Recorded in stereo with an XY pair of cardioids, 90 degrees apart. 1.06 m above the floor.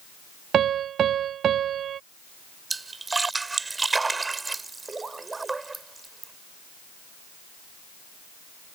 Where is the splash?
25° right.